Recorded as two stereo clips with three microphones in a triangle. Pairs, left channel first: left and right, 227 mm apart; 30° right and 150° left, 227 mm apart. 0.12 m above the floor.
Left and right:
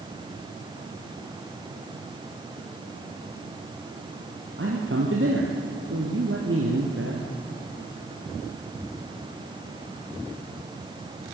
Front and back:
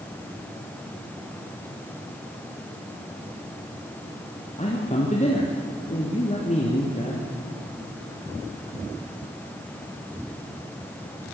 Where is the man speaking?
85° right, 3 m.